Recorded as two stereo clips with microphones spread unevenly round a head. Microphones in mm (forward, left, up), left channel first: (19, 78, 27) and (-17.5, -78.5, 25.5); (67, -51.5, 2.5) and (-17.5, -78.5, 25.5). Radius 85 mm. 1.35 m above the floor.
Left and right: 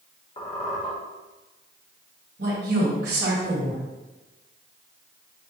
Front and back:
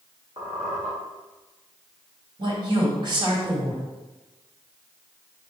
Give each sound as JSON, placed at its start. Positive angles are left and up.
{"t": 0.4, "sound": "a squeak", "azimuth_deg": 135, "distance_m": 1.4}
{"t": 2.4, "sound": "a woman speaking", "azimuth_deg": -130, "distance_m": 1.8}